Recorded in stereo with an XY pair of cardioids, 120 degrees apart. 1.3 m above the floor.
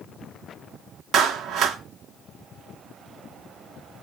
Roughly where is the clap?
Ahead right.